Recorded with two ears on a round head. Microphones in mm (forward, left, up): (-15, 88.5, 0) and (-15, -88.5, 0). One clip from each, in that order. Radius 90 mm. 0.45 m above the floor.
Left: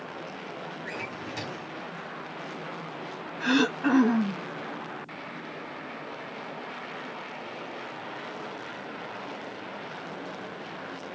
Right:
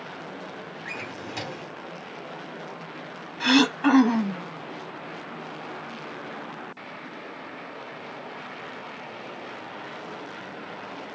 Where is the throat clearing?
85° right, 0.9 m.